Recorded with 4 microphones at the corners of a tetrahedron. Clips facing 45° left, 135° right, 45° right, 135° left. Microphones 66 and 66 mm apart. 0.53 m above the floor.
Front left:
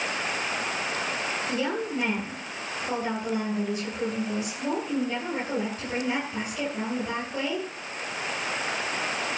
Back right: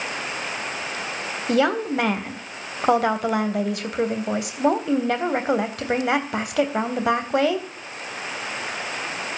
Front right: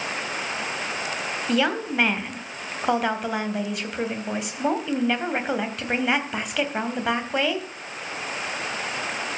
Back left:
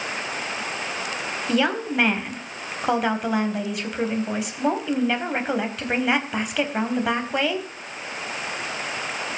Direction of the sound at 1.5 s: 140° right.